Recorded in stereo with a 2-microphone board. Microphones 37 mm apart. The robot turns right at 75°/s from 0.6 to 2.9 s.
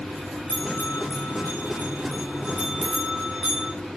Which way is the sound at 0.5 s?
35° left (ahead or behind).